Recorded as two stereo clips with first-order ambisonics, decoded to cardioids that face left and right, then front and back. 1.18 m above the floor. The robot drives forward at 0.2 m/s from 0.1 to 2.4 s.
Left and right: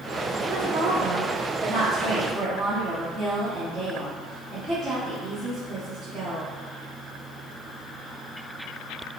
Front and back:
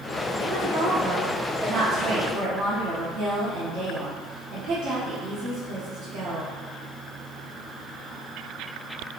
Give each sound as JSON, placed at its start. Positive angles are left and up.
{"t": 0.4, "sound": "a woman speaking", "azimuth_deg": -130, "distance_m": 0.7}